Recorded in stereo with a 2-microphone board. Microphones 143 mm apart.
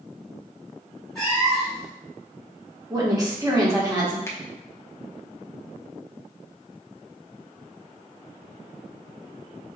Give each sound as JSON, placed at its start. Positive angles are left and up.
{"t": 1.1, "sound": "a cat meowing", "side_deg": 5, "distance_m": 1.9}
{"t": 2.9, "sound": "a woman speaking", "side_deg": -25, "distance_m": 1.1}
{"t": 4.3, "sound": "a finger snap", "side_deg": 20, "distance_m": 0.5}